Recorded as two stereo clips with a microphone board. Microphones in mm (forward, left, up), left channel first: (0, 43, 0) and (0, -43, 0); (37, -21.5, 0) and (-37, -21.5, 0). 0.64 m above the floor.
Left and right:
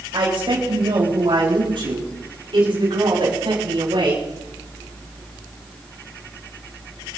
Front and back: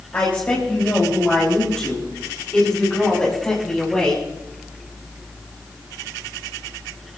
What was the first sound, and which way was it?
A woman speaking, 70° right.